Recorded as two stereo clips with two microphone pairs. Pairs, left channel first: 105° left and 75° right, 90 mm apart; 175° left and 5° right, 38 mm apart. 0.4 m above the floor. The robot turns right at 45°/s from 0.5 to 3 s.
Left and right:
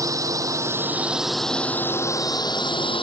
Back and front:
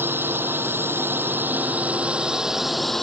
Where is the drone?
25° right; by 3.0 s 90° left.